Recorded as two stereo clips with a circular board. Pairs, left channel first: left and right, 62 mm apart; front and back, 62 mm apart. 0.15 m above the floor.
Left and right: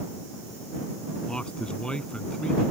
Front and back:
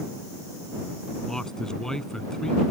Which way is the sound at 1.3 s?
55° left.